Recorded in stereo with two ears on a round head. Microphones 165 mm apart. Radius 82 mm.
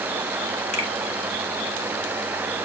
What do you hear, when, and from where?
0.7 s a finger snap: 40° left (ahead or behind), 2 m